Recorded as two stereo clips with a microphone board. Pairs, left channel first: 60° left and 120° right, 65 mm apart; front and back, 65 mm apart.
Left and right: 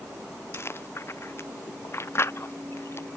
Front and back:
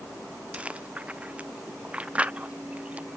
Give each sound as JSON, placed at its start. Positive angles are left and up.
{"t": 0.5, "sound": "chewing", "azimuth_deg": 110}